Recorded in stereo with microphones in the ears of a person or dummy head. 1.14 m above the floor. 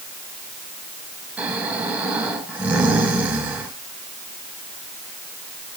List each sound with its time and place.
1.4 s snoring: 5° right (ahead or behind), 6 m